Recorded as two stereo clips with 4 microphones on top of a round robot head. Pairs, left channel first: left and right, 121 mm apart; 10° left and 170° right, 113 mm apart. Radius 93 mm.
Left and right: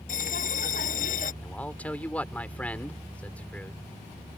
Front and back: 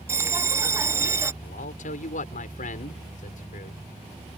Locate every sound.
0.1 s a bell: 125° left
1.4 s a man speaking: 10° left